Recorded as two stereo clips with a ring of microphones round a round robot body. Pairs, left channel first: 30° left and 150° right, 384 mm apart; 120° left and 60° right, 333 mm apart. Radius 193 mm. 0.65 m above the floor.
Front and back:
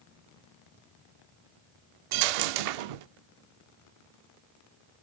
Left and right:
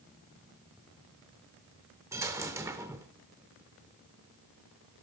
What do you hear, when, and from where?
2.1 s a dropped coin: 145° right, 0.7 m